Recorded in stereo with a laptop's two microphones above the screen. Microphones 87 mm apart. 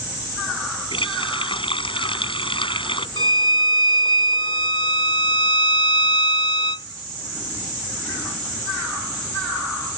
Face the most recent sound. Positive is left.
turn(degrees=70)  # may be behind; listen again after turning